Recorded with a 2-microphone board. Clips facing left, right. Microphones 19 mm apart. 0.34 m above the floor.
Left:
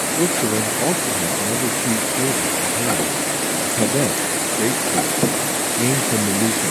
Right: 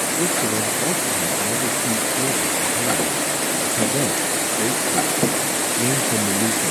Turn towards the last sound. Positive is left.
turn(degrees=20)  # may be behind; listen again after turning